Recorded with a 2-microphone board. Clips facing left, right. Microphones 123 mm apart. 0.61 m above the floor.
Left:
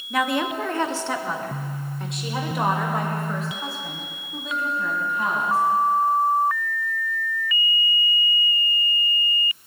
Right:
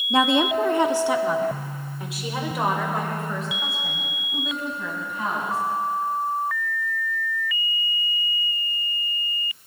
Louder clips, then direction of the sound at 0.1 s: Right 4 dB; 25° right (ahead or behind).